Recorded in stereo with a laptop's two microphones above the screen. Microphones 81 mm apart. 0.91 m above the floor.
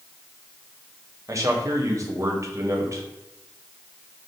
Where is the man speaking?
40° right (ahead or behind), 1.0 m.